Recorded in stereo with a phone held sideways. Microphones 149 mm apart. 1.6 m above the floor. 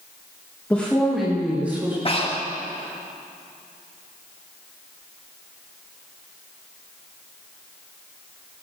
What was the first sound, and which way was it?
A woman speaking, 10° left (ahead or behind).